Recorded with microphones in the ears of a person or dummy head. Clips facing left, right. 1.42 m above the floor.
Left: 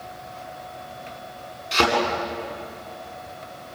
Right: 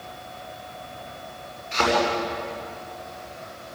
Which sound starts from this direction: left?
A thud, at 1.7 s.